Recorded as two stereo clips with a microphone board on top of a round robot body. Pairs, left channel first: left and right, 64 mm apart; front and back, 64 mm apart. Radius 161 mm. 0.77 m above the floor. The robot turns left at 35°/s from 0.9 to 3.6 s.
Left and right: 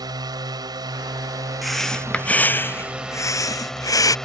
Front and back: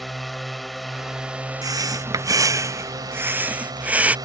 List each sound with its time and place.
0.0 s a drone: 90° right; by 4.3 s 175° left
1.6 s breathing: 175° right; by 4.2 s 115° left